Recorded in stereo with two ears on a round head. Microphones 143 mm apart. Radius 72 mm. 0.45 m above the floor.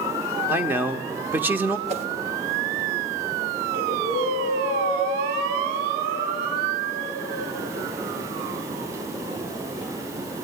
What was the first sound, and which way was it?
A man speaking, 15° right (ahead or behind).